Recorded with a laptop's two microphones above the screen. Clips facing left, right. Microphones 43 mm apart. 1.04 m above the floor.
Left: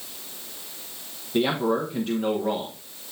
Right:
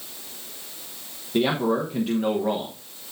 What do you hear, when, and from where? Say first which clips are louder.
1.3 s a man speaking: right 1 dB; 5° right (ahead or behind), 1.0 m